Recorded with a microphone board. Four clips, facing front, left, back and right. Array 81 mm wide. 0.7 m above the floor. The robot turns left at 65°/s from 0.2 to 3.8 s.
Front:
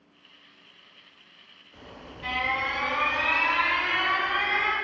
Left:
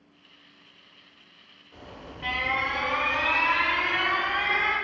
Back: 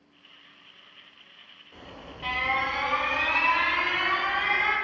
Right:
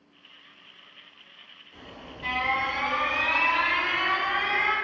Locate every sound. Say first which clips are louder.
1.7 s an alarm: left 1 dB, back 1 dB; 150° left, 1.0 m; by 4.7 s 15° left, 1.0 m